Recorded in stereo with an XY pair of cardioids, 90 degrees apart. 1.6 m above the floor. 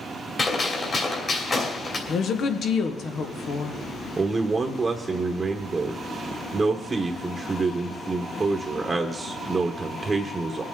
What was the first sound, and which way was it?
A gunshot, 40° left.